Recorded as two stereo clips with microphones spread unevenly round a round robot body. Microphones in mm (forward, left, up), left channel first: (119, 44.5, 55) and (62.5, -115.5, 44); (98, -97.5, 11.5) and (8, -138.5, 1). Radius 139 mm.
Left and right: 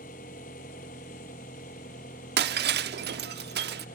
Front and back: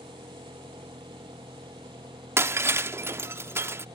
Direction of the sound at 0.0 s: 130° left.